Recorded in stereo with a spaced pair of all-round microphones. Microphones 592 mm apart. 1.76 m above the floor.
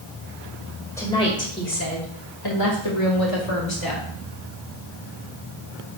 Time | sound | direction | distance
1.0 | a woman speaking | 5° left (ahead or behind) | 2.5 m